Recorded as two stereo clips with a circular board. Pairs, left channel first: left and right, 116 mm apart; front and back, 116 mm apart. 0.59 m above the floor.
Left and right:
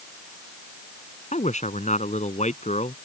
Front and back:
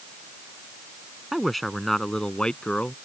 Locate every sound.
1.3 s a man speaking: 90° left; by 3.0 s 80° left